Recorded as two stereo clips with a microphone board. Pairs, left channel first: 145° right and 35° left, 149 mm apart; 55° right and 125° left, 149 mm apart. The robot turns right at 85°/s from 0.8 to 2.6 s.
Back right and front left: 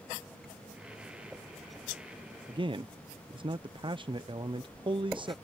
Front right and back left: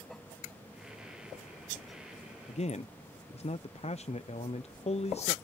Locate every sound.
2.5 s a man speaking: 30° right; by 5.3 s 20° right